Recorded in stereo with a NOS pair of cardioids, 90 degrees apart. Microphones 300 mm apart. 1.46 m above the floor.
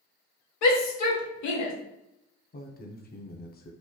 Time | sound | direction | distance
0.6 | a shout | 65° left | 0.9 m
2.5 | a man speaking | 30° left | 0.7 m